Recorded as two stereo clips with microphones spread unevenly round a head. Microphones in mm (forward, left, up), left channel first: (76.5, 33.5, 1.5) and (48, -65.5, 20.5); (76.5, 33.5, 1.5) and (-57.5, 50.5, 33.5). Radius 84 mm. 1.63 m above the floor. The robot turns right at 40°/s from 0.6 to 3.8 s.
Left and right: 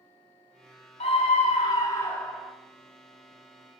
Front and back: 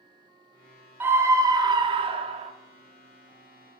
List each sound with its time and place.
1.0 s a scream: 110° left, 0.8 m; by 2.5 s 170° left, 0.8 m